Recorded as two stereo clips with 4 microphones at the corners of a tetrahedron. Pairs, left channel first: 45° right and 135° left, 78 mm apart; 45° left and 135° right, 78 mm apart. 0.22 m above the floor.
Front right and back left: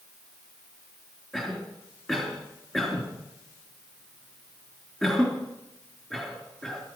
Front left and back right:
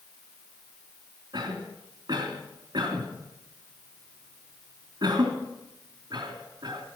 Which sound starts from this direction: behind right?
A cough, at 1.3 s.